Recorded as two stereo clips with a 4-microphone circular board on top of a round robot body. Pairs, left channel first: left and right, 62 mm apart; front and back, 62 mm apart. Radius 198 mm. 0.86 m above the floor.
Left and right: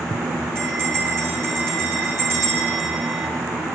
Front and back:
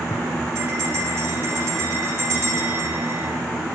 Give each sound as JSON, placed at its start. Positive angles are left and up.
{"t": 0.6, "sound": "a bell", "azimuth_deg": -140, "distance_m": 8.0}